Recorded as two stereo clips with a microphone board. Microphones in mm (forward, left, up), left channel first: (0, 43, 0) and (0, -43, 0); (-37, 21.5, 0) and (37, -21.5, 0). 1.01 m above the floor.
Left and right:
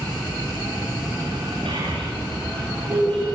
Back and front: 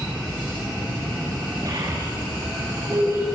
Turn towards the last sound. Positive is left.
turn(degrees=-85)